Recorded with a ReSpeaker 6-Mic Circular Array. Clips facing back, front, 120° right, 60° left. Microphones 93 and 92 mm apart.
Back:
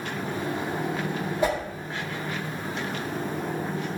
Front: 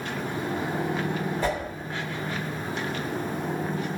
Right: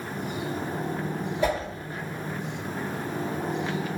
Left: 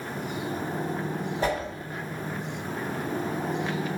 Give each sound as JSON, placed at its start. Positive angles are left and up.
{"t": 1.4, "sound": "a whoosh", "azimuth_deg": 105, "distance_m": 1.4}